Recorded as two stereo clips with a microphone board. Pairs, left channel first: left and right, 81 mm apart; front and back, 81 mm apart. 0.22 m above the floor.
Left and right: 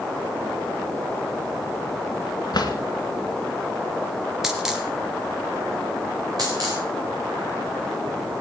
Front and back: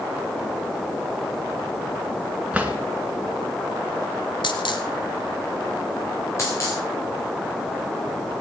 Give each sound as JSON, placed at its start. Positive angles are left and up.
{"t": 2.5, "sound": "a drawer", "azimuth_deg": 105, "distance_m": 1.7}
{"t": 4.4, "sound": "a dropped coin", "azimuth_deg": -5, "distance_m": 1.6}
{"t": 6.4, "sound": "a dropped coin", "azimuth_deg": -55, "distance_m": 3.5}